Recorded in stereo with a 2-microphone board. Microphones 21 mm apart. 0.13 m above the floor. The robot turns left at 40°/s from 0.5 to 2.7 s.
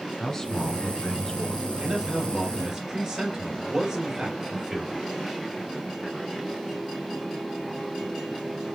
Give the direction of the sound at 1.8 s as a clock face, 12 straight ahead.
4 o'clock.